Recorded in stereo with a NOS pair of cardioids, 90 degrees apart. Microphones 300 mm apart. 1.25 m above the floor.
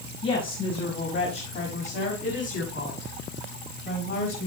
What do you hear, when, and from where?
0.2 s a woman speaking: 45° left, 5.5 m; by 4.5 s 40° left, 8 m